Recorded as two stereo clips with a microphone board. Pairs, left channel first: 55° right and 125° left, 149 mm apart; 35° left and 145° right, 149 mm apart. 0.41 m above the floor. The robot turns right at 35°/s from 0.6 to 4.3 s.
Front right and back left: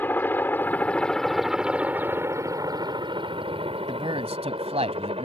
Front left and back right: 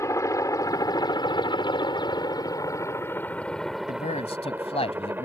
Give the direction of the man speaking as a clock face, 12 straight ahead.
10 o'clock.